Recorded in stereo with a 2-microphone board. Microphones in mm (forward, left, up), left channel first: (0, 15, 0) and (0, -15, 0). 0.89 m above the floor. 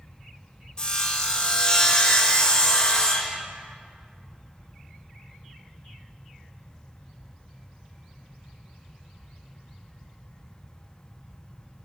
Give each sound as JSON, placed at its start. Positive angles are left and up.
{"t": 0.8, "sound": "sawing", "side_deg": 25, "distance_m": 1.1}